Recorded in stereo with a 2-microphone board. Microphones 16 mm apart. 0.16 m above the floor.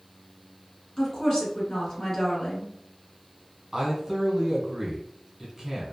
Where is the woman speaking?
40° left (ahead or behind), 1.5 m.